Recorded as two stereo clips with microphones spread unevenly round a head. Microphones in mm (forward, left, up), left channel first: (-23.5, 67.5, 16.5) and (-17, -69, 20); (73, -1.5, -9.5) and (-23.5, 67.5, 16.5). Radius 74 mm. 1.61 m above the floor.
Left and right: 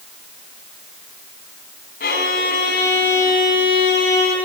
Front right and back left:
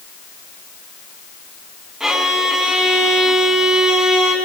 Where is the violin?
60° left, 4 m.